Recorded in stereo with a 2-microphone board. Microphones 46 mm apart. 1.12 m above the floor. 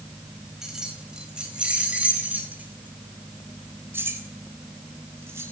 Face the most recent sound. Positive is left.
turn(degrees=-80)